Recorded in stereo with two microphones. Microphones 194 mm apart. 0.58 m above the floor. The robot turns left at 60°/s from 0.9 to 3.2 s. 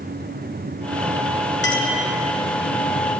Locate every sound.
1.6 s a clink: 75° left (ahead or behind), 0.8 m; by 1.9 s 70° left (ahead or behind), 0.8 m